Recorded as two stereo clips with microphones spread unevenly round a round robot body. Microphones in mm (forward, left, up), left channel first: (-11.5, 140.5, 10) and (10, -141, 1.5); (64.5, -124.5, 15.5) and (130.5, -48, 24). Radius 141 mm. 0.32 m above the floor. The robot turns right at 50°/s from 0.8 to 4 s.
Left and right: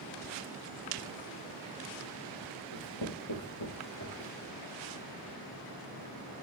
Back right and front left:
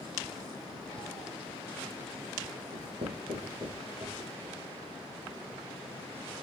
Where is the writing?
75° left, 7 m; by 4.3 s 140° left, 7 m.